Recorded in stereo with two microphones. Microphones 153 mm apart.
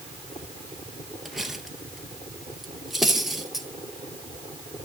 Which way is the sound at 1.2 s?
Centre (ahead or behind).